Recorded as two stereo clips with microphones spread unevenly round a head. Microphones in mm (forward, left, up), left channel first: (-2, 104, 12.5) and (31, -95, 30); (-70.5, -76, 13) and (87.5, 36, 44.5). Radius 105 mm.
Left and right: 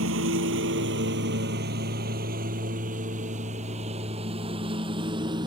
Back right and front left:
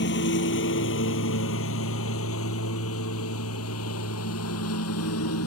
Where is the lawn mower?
110° right; by 5.5 s 150° right.